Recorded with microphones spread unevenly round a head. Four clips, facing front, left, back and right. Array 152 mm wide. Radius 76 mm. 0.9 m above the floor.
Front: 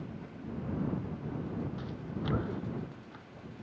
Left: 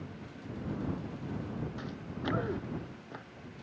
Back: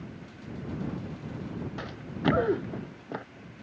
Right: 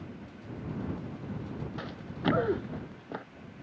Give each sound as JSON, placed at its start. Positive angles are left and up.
{"t": 1.8, "sound": "running footsteps", "azimuth_deg": -155}